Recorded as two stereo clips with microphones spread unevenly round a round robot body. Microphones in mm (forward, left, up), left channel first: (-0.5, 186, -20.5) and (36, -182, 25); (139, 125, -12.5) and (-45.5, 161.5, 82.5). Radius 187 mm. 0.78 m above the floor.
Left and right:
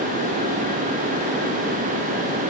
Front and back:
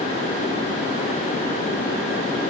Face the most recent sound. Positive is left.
No sound to turn to.